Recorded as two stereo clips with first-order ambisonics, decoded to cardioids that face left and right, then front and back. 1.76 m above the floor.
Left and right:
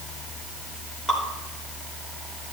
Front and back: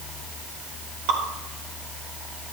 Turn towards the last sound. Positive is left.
turn(degrees=-175)